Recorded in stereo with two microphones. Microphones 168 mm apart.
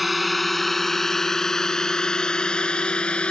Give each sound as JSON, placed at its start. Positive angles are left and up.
{"t": 0.0, "sound": "a drone", "side_deg": 0}